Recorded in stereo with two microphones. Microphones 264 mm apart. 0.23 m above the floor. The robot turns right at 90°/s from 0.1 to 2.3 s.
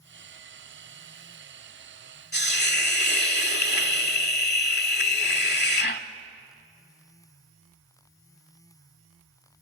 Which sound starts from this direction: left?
A hiss, at 2.3 s.